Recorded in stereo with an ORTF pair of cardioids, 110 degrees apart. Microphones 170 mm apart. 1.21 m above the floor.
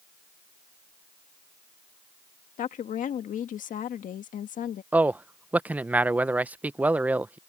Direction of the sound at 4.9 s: 10° right.